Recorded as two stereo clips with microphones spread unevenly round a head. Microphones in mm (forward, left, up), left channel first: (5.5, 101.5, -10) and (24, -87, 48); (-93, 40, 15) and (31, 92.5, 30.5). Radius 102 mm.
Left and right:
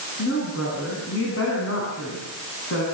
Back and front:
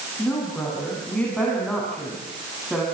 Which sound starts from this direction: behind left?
A woman speaking, at 0.2 s.